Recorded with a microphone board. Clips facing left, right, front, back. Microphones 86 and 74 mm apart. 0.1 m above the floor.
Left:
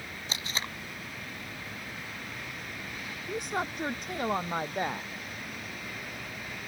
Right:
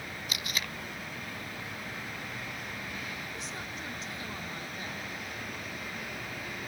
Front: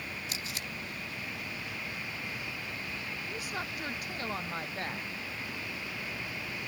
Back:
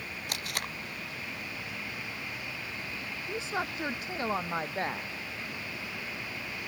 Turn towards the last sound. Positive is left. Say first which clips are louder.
# left 8 dB, back 7 dB
turn(degrees=115)